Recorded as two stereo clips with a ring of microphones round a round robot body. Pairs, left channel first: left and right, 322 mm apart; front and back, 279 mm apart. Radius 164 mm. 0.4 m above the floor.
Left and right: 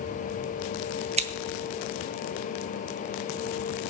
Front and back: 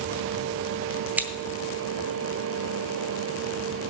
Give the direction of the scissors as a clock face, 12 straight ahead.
4 o'clock.